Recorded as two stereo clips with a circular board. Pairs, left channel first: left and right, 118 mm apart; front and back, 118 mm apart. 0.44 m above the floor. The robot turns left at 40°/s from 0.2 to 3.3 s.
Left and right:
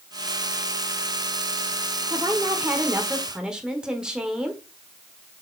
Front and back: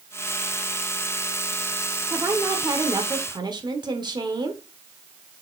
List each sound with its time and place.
2.1 s a woman speaking: 120° right, 1.3 m; by 4.6 s 170° right, 1.3 m